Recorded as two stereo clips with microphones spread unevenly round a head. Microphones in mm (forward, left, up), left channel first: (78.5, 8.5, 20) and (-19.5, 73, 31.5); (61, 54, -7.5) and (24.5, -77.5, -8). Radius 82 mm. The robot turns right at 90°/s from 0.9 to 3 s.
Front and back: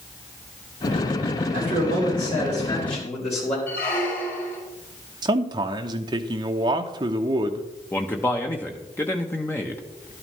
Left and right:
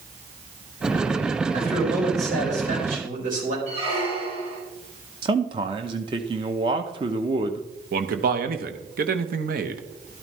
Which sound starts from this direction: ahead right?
A squeak, at 3.7 s.